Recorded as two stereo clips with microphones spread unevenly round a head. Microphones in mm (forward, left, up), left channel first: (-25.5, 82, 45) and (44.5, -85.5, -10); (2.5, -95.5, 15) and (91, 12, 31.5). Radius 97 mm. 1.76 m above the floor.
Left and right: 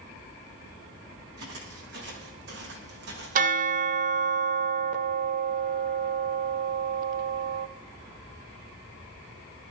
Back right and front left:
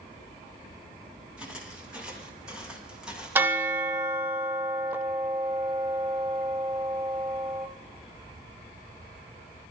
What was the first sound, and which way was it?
Footsteps, 30° right.